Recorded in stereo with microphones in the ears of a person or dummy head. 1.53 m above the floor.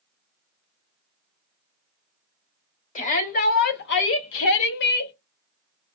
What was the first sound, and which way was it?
A shout, 40° left (ahead or behind).